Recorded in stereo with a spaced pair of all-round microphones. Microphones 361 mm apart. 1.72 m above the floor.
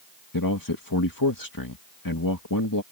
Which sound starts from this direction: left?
A man speaking, at 0.3 s.